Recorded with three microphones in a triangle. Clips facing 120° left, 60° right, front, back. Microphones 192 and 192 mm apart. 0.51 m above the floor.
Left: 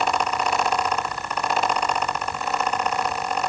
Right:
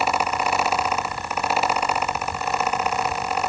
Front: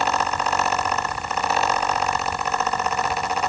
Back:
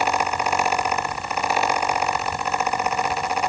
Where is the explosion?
I don't hear an explosion.